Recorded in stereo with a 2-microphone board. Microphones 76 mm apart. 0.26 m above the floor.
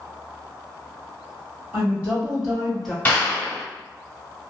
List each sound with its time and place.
1.7 s a woman speaking: 30° right (ahead or behind), 1.7 m; by 3.0 s 10° left (ahead or behind), 1.4 m
3.0 s a clap: 25° left (ahead or behind), 0.9 m